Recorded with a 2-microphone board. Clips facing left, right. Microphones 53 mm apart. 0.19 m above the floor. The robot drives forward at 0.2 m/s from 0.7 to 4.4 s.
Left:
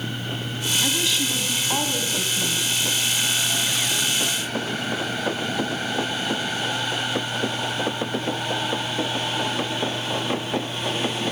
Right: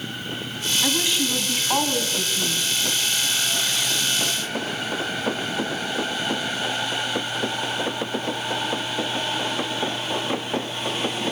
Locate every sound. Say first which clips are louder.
0.8 s a woman speaking: right 2 dB; 20° right (ahead or behind), 1.1 m; by 2.7 s 15° right (ahead or behind), 1.2 m